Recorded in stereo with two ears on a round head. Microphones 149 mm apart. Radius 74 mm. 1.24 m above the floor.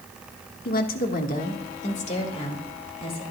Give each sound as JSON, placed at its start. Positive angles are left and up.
{"t": 0.7, "sound": "a woman speaking", "side_deg": 60, "distance_m": 1.6}